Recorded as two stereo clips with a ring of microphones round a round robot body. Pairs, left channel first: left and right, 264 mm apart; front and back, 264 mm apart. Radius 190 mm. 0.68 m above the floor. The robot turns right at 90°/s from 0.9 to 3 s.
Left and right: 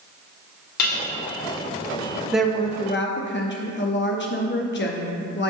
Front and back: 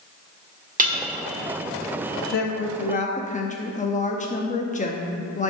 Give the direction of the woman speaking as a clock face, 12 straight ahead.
12 o'clock.